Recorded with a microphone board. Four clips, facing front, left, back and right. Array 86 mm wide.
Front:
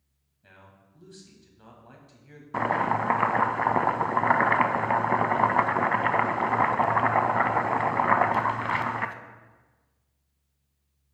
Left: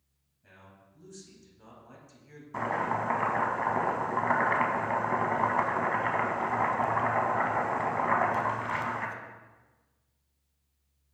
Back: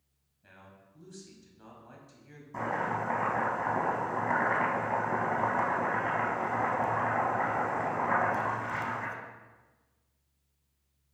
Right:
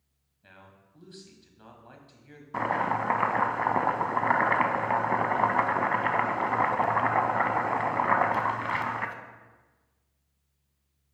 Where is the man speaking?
70° right, 1.2 m.